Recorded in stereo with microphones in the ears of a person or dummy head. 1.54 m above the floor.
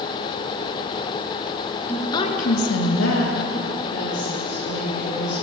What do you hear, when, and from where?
1.9 s a woman speaking: 10° left (ahead or behind), 1.3 m; by 5.3 s 50° left (ahead or behind), 4 m